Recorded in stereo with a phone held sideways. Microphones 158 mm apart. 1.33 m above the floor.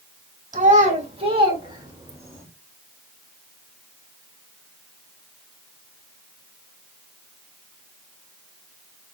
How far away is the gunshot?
No gunshot in this recording.